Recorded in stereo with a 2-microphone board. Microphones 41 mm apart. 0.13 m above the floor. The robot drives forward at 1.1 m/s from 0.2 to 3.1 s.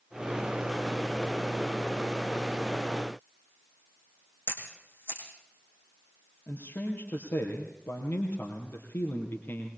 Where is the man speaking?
60° left (ahead or behind), 3 m.